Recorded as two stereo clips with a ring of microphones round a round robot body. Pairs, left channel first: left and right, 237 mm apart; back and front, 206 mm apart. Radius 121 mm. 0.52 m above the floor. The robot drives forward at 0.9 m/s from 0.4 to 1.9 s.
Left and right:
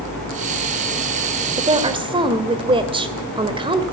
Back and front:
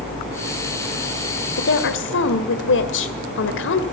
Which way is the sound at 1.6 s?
155° right.